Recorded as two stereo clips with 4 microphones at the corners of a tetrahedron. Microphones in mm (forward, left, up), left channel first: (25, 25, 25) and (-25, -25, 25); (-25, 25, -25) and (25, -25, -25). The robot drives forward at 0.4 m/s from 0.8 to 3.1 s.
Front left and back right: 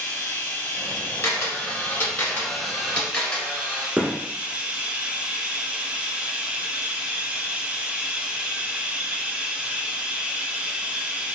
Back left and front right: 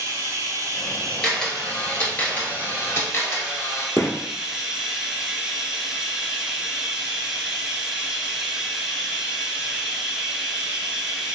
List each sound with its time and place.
0.0 s running water: 10° right, 1.0 m; by 11.4 s 105° right, 0.5 m
1.2 s a camera shutter: 60° left, 1.2 m; by 3.9 s 120° left, 1.2 m
4.0 s a gunshot: 165° left, 0.9 m